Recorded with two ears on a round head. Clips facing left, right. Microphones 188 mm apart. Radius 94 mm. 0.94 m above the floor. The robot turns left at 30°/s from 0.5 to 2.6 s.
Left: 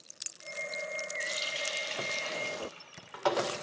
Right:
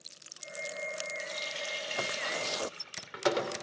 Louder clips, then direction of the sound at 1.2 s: Left 1 dB; 15° left.